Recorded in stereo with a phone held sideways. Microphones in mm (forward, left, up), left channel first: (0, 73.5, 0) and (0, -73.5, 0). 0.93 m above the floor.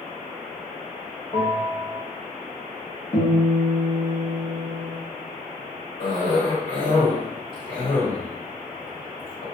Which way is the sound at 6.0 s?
75° left (ahead or behind).